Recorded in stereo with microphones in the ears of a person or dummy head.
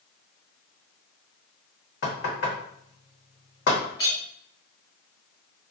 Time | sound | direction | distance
2.0 | knocking | 65° left (ahead or behind) | 1.0 m
4.0 | a clink | 25° left (ahead or behind) | 0.7 m